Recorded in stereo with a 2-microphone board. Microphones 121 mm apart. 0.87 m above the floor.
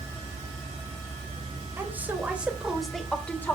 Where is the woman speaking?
20° right (ahead or behind), 3.5 m; by 3.6 s 15° left (ahead or behind), 2.5 m.